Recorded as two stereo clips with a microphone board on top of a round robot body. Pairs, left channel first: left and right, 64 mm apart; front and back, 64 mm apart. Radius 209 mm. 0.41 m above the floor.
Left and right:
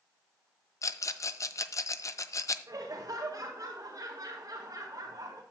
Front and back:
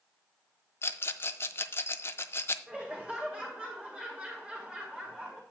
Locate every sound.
0.8 s a rattle: 55° left, 0.6 m
2.7 s laughter: 110° right, 2 m